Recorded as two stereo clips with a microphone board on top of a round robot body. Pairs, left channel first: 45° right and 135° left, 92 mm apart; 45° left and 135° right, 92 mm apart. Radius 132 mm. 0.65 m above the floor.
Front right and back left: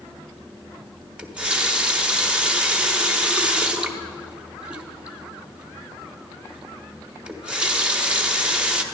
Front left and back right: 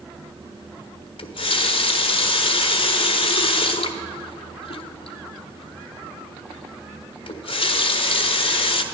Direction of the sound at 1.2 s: 55° left.